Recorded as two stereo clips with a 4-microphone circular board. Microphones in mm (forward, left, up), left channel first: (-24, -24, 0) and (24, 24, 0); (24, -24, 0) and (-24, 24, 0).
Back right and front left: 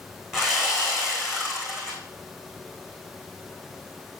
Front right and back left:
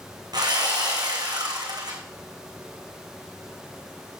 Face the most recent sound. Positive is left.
turn(degrees=125)